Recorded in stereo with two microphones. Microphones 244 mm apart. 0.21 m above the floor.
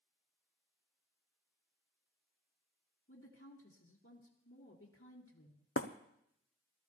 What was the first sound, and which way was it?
A woman speaking, 55° left (ahead or behind).